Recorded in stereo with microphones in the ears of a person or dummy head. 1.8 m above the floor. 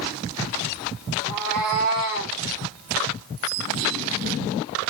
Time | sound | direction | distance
1.2 | a cat meowing | 30° right (ahead or behind) | 1.9 m